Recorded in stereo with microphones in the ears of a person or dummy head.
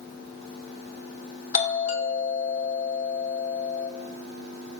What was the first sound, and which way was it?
A doorbell, 40° left (ahead or behind).